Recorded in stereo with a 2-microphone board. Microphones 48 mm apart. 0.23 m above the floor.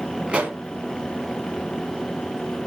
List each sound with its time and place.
0.3 s a pop: 25° right (ahead or behind), 1.9 m